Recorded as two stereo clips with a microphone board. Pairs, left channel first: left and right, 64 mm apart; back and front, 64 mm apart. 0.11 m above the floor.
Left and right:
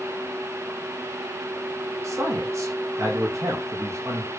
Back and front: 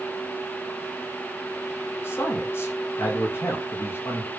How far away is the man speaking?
About 4.5 m.